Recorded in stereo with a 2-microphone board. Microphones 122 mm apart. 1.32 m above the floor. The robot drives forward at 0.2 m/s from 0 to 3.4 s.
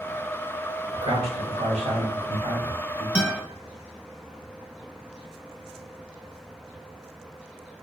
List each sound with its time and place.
0.9 s a man speaking: 45° right (ahead or behind), 1.1 m; by 3.0 s 70° right (ahead or behind), 0.8 m
3.1 s a guitar: 10° right (ahead or behind), 1.1 m